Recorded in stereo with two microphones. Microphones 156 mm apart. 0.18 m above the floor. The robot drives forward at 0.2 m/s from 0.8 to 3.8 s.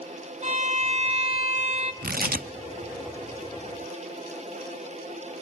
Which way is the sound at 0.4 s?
45° right (ahead or behind).